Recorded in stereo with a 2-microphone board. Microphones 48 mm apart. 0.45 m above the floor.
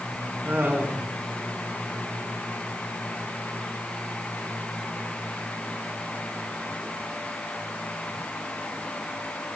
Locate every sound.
0.5 s laughter: 35° right (ahead or behind), 5 m